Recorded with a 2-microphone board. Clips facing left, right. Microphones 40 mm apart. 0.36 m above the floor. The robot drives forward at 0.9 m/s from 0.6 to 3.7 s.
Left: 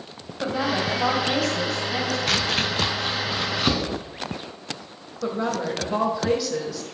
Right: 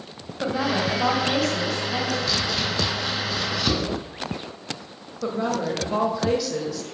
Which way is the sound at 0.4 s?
5° right (ahead or behind).